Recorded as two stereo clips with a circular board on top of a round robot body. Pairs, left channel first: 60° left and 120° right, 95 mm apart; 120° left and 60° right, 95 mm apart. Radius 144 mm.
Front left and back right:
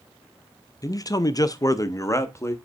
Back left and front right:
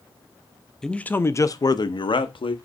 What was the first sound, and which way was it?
A man speaking, 40° left.